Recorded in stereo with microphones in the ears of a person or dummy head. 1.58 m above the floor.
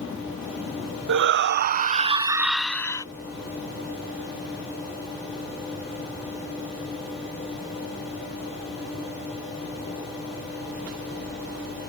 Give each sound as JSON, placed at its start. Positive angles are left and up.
{"t": 1.1, "sound": "a shout", "side_deg": -65}